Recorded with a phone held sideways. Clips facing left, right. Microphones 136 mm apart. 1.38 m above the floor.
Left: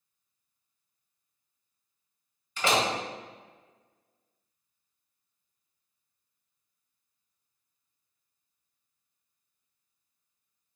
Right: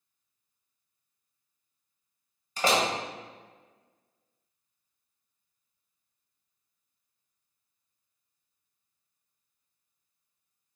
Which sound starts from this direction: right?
A door slam, at 2.6 s.